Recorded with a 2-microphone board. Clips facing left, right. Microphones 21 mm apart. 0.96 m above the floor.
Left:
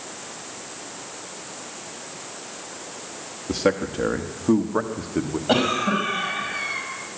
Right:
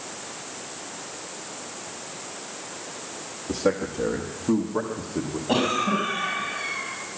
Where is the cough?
75° left (ahead or behind), 5.5 m.